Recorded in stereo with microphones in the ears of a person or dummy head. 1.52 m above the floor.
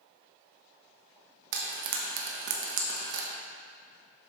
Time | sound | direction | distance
1.5 | frying | 65° right (ahead or behind) | 1.1 m